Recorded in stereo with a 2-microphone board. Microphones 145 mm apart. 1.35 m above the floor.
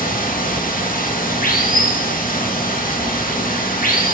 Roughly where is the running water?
Left.